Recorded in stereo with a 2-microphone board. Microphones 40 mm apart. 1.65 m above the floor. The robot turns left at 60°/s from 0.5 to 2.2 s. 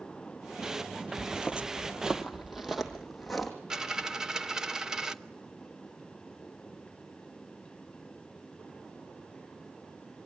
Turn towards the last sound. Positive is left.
turn(degrees=-15)  # may be behind; listen again after turning